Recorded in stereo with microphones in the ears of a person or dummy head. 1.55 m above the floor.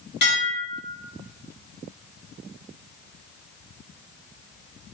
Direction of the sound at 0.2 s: 55° left (ahead or behind).